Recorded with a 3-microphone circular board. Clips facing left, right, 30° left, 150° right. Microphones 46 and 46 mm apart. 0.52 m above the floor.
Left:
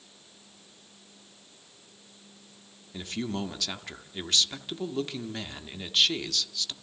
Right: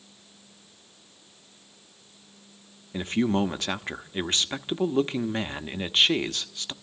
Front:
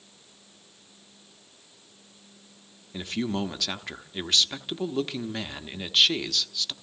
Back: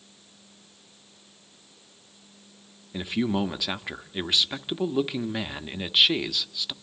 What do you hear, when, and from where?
2.9 s a man speaking: 80° right, 0.8 m